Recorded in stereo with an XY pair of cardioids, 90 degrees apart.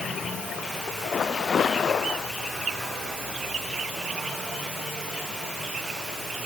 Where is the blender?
No blender in this recording.